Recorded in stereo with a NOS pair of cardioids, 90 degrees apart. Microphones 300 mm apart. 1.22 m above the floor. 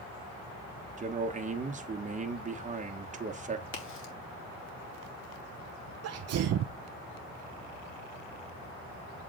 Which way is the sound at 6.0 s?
60° right.